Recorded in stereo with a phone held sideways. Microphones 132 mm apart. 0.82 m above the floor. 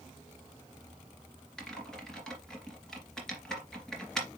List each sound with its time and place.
1.6 s typing on a keyboard: 5° left (ahead or behind), 2.5 m